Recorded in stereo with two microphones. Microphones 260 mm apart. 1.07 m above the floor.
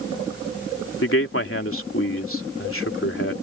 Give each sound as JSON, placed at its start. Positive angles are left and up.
{"t": 1.0, "sound": "a man speaking", "side_deg": 55}